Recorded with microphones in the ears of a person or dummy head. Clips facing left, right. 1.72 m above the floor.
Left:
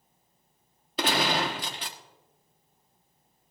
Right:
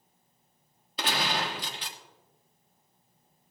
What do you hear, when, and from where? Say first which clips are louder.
1.0 s a gunshot: left 5 dB; 50° left (ahead or behind), 1.0 m